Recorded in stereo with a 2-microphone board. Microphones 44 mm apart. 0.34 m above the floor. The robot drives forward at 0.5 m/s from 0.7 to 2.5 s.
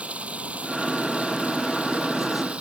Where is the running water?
30° right (ahead or behind); by 2.6 s 25° right (ahead or behind).